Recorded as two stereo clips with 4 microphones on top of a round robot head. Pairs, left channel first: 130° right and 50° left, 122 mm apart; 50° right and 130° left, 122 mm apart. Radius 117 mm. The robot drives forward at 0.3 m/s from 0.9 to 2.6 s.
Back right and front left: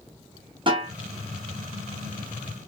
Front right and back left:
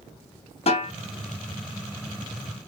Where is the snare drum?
5° right, 0.8 m.